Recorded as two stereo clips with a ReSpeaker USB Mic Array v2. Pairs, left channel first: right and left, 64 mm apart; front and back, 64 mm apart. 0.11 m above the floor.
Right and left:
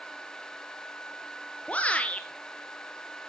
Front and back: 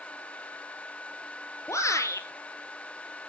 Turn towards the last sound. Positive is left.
turn(degrees=-25)